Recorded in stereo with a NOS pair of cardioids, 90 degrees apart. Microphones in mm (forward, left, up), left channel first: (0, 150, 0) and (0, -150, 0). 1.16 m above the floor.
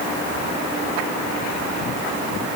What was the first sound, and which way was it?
Only background noise.